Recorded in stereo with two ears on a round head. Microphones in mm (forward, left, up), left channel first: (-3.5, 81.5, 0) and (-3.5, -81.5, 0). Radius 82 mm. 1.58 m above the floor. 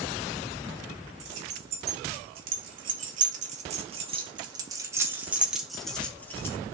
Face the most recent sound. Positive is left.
turn(degrees=15)  # may be behind; listen again after turning